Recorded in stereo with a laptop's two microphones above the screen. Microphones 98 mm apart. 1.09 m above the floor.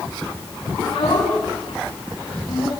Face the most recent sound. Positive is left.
turn(degrees=75)  # may be behind; listen again after turning